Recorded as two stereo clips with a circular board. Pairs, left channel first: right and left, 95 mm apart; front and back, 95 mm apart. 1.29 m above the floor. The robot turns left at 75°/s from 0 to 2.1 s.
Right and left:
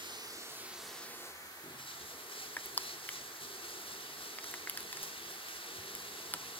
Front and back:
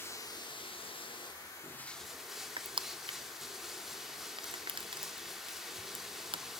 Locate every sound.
0.0 s running water: 65° left, 2.5 m; by 6.6 s 95° right, 2.5 m
2.6 s crushing: 160° right, 0.5 m